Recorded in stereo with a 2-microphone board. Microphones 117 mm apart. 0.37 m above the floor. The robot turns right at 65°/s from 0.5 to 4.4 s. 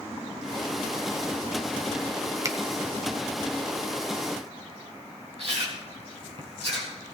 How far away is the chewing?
About 4 m.